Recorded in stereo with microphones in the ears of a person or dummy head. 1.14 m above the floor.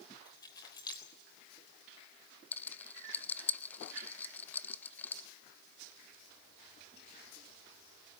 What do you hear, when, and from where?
0.2 s keys jangling: 25° left (ahead or behind), 3.5 m
2.5 s a rattle: 10° left (ahead or behind), 0.5 m